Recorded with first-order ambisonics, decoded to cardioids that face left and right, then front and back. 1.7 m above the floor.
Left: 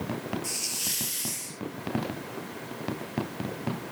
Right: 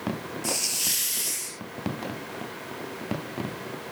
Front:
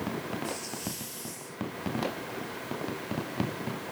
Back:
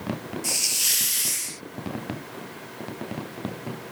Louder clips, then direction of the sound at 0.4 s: Right 7 dB, back 12 dB; 165° right.